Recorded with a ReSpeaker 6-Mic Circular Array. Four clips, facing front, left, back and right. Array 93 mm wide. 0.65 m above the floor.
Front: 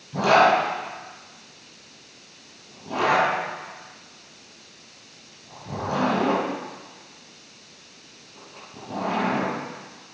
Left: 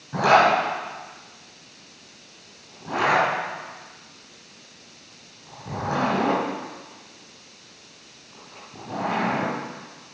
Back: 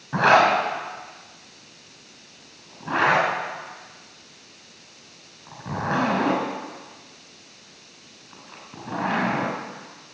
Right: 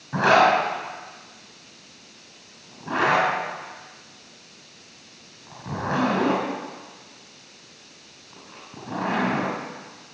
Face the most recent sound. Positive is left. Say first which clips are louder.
# even, even
turn(degrees=-160)